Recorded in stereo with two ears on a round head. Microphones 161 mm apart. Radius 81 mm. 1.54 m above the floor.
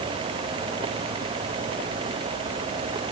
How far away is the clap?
I don't hear a clap.